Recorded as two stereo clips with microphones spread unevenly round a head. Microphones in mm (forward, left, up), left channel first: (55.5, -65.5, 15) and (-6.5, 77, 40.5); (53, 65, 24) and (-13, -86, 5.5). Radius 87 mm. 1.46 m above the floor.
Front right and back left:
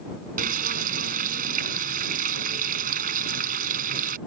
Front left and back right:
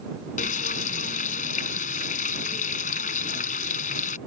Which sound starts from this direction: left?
Frying, at 0.4 s.